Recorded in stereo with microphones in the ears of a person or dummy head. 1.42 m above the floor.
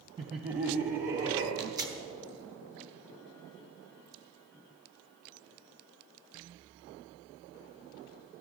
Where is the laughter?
25° right (ahead or behind), 0.7 m; by 1.5 s 45° right (ahead or behind), 1.5 m.